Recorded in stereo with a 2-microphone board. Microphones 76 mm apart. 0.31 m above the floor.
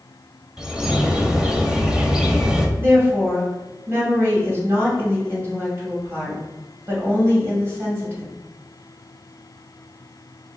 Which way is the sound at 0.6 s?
10° right (ahead or behind).